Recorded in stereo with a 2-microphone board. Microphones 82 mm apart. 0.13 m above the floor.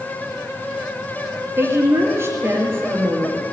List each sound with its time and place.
1.6 s a woman speaking: 30° right (ahead or behind), 3 m